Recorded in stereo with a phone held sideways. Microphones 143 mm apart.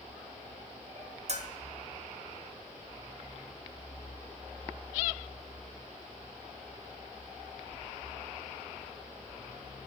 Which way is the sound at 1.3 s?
55° right (ahead or behind).